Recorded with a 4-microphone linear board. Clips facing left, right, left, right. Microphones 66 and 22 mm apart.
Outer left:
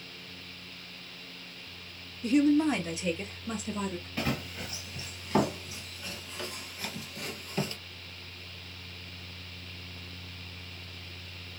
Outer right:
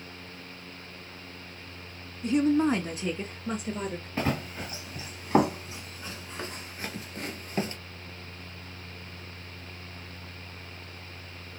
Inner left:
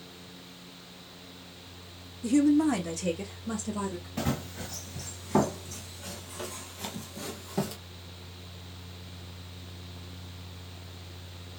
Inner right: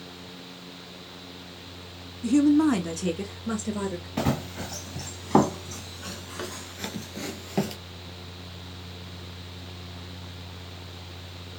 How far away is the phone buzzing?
I don't hear a phone buzzing.